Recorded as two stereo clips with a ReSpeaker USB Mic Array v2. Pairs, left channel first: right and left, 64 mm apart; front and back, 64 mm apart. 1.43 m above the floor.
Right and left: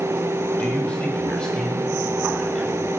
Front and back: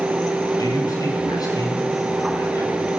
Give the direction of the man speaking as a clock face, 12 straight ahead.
1 o'clock.